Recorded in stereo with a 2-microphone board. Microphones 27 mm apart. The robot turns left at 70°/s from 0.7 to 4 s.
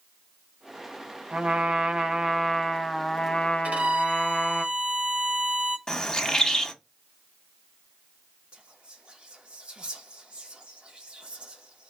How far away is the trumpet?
About 0.8 m.